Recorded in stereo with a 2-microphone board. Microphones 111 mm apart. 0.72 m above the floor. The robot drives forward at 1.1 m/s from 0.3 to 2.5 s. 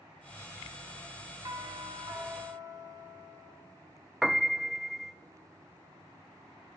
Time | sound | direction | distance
1.4 | a doorbell | 35° right (ahead or behind) | 1.8 m
4.2 | a piano | centre (ahead or behind) | 0.5 m